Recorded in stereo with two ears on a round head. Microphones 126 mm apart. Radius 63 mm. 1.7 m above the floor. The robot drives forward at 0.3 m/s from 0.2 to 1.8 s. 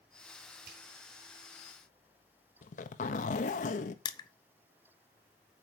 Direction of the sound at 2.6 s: 60° left (ahead or behind).